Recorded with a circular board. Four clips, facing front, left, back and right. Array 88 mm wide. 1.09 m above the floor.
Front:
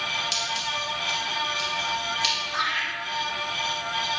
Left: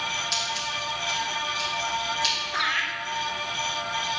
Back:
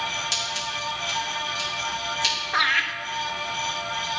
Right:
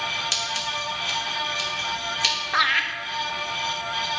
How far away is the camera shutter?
I don't hear a camera shutter.